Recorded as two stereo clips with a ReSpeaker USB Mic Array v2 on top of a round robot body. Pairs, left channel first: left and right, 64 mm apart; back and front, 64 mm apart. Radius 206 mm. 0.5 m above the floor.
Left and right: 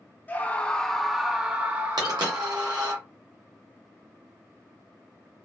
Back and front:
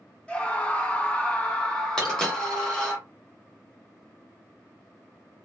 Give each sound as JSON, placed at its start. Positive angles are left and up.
{"t": 0.3, "sound": "a scream", "azimuth_deg": 125, "distance_m": 1.1}
{"t": 2.0, "sound": "a dropped coin", "azimuth_deg": -100, "distance_m": 1.1}